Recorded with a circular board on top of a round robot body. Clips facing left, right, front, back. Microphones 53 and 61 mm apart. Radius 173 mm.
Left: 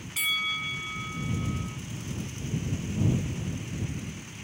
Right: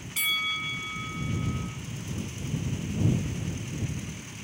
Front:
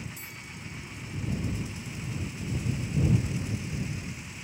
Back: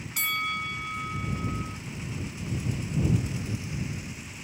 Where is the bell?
Straight behind.